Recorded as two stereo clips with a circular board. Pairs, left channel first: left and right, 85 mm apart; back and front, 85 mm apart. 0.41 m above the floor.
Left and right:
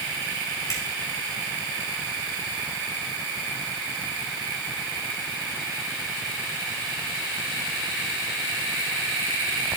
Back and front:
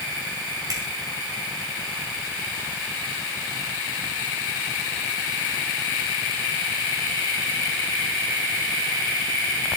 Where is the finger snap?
40° left, 5 m.